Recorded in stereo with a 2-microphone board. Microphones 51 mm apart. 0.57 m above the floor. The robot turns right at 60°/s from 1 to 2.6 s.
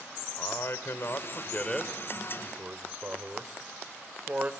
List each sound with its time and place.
0.4 s a man speaking: 50° left (ahead or behind), 1.9 m; by 4.5 s 35° right (ahead or behind), 1.9 m